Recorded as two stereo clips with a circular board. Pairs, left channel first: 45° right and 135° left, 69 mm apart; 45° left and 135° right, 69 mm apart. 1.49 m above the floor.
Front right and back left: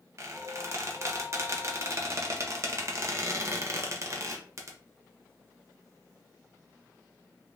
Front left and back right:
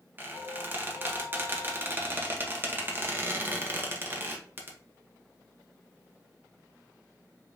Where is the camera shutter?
I don't hear a camera shutter.